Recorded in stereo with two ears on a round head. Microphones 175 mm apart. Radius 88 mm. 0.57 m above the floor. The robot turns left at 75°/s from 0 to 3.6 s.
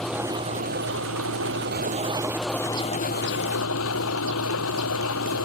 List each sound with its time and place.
0.0 s an engine running: 5° left; by 5.5 s 95° left